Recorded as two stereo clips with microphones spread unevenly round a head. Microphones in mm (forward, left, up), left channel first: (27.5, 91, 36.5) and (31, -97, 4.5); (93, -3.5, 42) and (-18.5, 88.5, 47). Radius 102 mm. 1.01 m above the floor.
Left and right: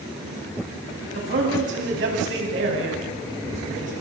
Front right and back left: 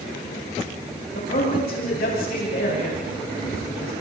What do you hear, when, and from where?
1.1 s a man speaking: 70° right, 9 m